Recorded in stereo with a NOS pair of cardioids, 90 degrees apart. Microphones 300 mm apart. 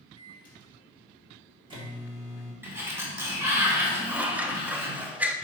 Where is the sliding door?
5° right, 2.5 m.